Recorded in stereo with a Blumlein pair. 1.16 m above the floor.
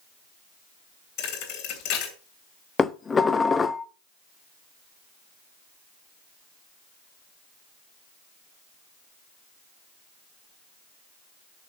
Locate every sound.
1.2 s a thud: 40° left, 2.5 m
2.8 s dishes clattering: 15° left, 0.7 m